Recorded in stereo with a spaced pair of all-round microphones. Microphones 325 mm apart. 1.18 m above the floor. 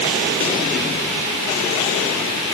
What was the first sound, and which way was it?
Only background noise.